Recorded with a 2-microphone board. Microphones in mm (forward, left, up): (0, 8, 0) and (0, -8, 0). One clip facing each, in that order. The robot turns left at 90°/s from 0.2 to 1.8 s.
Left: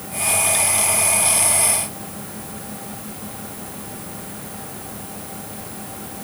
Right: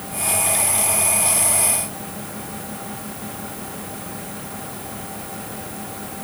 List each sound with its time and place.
Only background noise.